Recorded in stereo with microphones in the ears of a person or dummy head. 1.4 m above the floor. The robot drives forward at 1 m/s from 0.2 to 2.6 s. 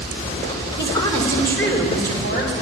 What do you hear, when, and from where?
0.8 s a woman speaking: 25° left (ahead or behind), 2 m; by 2.5 s 15° left (ahead or behind), 4 m